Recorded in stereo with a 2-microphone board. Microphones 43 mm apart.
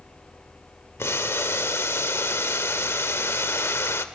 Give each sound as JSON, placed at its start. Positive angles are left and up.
{"t": 1.0, "sound": "boiling", "side_deg": 80, "distance_m": 1.1}